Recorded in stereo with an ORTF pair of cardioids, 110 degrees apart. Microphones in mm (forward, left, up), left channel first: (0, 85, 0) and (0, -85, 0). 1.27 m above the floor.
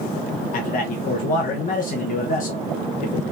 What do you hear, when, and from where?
0.5 s a man speaking: 55° left, 1.1 m